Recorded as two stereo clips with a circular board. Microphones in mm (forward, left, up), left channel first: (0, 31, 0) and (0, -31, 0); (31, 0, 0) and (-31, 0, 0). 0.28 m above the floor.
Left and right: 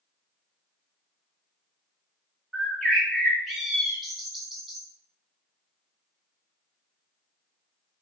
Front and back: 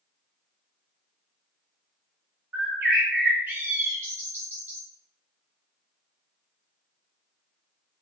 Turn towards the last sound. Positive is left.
turn(degrees=180)